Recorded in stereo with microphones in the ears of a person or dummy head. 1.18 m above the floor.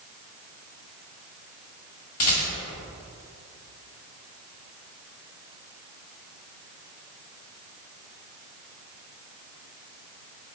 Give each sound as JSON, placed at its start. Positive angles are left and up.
{"t": 2.2, "sound": "a rattle", "side_deg": 45, "distance_m": 1.4}